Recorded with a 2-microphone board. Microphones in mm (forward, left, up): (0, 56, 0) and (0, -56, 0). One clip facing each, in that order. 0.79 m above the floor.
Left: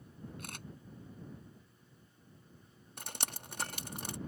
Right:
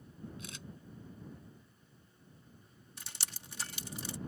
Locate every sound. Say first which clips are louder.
0.4 s a camera shutter: left 1 dB; 55° left (ahead or behind)
3.0 s dripping: left 7 dB; 55° left (ahead or behind)